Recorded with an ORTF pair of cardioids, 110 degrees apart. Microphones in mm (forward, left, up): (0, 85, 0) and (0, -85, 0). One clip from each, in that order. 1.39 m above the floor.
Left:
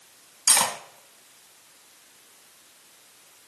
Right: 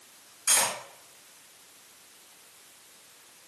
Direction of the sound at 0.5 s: 45° left.